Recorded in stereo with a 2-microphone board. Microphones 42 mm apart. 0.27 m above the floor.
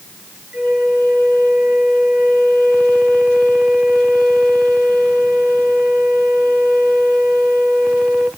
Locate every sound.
0.5 s a flute: 15° right (ahead or behind), 2.5 m